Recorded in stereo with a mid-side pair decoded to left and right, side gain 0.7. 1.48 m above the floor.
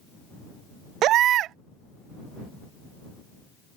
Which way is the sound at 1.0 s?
50° right.